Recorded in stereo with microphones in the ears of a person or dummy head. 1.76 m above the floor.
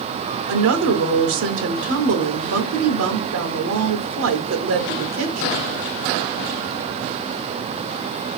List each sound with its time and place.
0.5 s a woman speaking: 60° right (ahead or behind), 1.0 m